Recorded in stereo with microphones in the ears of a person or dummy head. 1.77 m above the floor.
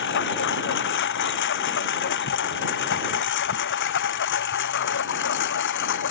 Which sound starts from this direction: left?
A lawn mower, at 0.0 s.